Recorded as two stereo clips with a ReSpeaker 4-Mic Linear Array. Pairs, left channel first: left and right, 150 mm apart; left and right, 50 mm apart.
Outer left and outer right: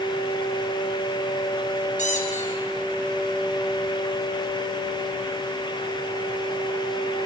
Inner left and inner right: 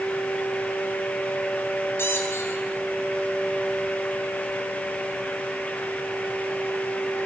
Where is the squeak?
55° left (ahead or behind), 4.5 m.